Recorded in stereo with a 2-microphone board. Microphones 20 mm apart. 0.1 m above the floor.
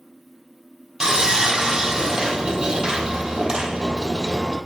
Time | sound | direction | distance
1.0 | sawing | 35° right (ahead or behind) | 2.5 m